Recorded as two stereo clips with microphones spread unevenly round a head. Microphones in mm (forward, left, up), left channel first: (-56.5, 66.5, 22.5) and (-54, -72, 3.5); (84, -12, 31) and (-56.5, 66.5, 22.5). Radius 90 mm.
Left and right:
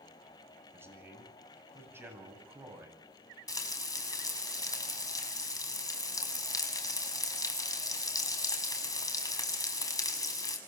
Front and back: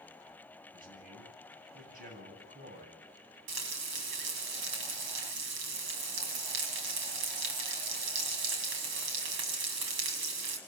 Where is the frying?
155° left, 6 m.